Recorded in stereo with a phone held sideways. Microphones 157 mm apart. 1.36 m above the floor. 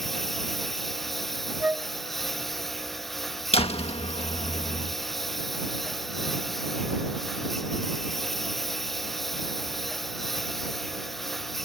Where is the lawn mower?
Centre (ahead or behind).